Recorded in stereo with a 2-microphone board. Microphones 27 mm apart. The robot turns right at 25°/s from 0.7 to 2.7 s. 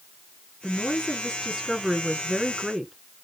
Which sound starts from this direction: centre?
A woman speaking, at 0.6 s.